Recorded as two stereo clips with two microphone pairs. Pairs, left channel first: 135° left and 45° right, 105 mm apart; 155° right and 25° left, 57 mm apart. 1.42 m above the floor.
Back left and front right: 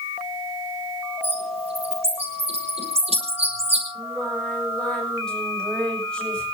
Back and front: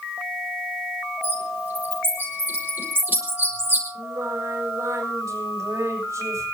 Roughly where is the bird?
Ahead right.